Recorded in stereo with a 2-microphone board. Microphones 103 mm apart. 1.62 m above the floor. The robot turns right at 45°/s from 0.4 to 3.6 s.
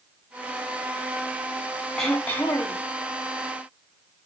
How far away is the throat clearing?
About 0.9 m.